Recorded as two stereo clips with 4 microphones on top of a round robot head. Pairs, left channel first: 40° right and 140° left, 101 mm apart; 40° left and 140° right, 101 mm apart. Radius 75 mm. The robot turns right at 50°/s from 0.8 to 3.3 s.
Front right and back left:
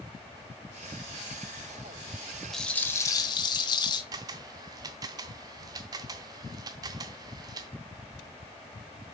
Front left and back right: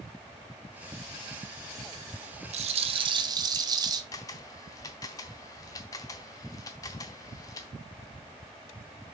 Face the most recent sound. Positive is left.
turn(degrees=95)